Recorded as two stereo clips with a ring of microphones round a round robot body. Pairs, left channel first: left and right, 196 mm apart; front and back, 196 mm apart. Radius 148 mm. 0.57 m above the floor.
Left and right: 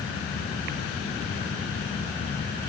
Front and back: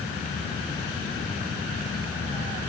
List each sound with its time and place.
Only background noise.